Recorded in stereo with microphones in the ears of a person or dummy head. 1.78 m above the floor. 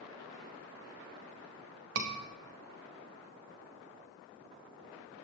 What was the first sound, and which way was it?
A scream, 65° right (ahead or behind).